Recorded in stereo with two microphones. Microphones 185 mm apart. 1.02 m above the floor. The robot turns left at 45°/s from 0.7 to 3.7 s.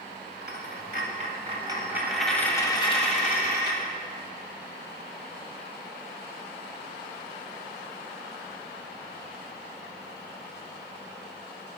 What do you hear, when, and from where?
0.4 s a dropped coin: 110° right, 1.8 m; by 3.8 s 115° left, 1.8 m